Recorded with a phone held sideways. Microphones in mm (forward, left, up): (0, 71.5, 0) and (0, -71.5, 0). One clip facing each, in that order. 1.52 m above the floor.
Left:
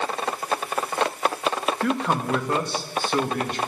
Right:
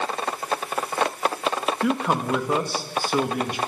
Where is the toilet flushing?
I don't hear a toilet flushing.